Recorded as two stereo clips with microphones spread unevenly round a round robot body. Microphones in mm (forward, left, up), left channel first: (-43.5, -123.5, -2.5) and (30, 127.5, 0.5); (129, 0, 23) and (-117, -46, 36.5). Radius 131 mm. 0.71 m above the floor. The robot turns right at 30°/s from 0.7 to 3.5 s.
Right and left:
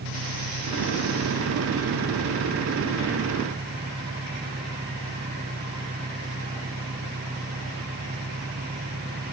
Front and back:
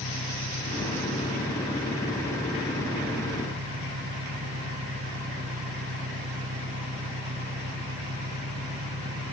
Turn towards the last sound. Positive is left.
turn(degrees=140)